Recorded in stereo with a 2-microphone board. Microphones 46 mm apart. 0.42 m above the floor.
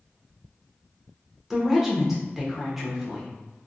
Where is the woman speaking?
5° right (ahead or behind), 0.8 m.